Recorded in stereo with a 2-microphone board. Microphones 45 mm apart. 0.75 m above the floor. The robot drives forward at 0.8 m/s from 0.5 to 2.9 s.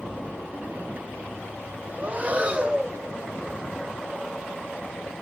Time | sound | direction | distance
2.0 | breathing | 30° right (ahead or behind) | 0.6 m